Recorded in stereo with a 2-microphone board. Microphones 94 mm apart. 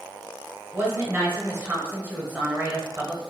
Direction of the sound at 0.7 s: 25° right (ahead or behind).